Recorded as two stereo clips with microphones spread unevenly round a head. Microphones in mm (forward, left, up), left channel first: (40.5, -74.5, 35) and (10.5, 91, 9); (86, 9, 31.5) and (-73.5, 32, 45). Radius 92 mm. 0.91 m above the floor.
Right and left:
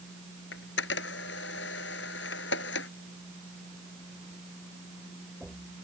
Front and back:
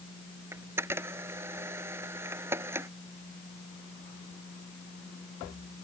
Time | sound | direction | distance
0.5 | a camera shutter | 110° right | ?